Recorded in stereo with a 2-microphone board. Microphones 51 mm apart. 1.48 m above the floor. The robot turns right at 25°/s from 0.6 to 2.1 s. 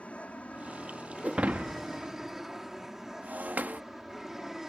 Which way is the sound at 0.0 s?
150° left.